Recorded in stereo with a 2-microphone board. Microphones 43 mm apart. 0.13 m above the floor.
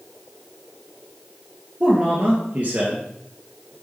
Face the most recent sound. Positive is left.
turn(degrees=-45)  # may be behind; listen again after turning